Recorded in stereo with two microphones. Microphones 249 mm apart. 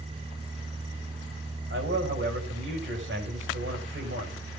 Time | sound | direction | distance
1.7 | a man speaking | 50° right (ahead or behind) | 4.5 m